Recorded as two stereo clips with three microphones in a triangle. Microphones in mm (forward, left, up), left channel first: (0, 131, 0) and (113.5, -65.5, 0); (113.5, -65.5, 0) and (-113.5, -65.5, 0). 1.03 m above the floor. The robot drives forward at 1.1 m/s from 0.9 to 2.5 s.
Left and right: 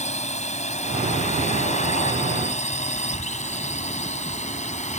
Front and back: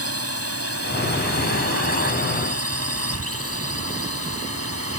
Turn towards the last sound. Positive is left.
turn(degrees=180)